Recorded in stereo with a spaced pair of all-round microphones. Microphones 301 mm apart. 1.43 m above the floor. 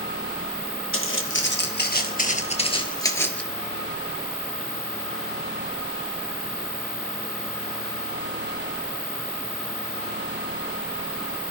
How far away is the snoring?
I don't hear snoring.